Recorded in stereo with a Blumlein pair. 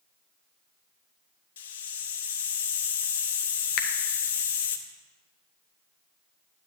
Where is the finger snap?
40° left, 0.7 m.